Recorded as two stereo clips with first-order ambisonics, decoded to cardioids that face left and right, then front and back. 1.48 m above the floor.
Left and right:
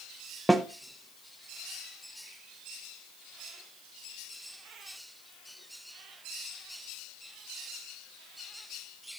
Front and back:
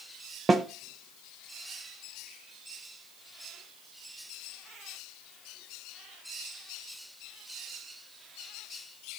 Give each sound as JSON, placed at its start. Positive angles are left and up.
{"t": 0.5, "sound": "a snare drum", "azimuth_deg": -175, "distance_m": 0.5}